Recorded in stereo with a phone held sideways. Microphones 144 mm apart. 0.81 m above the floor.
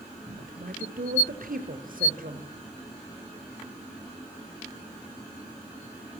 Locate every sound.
0.4 s a woman speaking: 75° right (ahead or behind), 3.5 m